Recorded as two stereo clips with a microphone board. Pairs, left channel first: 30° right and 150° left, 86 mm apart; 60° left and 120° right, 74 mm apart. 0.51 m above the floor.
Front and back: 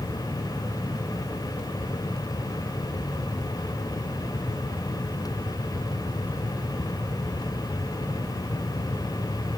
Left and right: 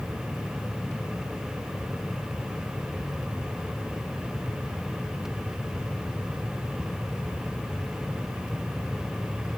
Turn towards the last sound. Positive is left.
No sound to turn to.